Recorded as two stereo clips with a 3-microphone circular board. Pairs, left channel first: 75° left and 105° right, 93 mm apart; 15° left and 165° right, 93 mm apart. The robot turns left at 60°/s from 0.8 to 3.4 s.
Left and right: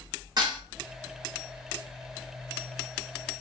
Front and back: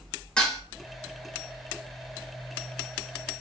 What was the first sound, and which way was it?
Dishes clattering, 65° right.